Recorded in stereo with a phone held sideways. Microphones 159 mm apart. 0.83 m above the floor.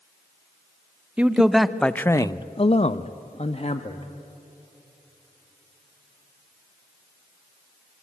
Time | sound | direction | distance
1.2 | a man speaking | 10° right (ahead or behind) | 1.0 m